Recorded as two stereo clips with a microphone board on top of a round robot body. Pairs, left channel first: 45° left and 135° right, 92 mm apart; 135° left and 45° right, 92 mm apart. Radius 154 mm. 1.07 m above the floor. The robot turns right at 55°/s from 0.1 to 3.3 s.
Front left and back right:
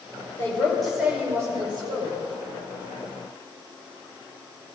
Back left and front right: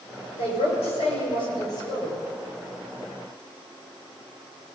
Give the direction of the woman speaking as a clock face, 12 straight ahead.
8 o'clock.